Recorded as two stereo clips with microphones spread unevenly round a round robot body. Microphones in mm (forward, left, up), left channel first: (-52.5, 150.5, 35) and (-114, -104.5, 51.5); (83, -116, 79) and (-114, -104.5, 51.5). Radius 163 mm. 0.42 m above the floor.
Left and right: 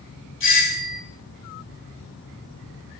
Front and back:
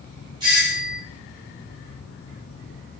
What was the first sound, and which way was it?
A doorbell, 110° left.